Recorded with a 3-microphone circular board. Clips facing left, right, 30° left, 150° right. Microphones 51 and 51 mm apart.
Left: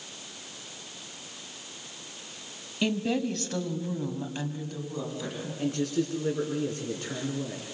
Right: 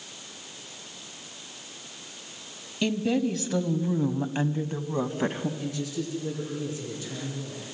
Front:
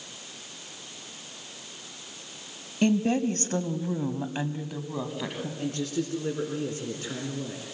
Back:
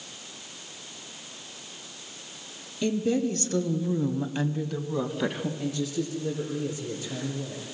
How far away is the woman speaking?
About 2.0 m.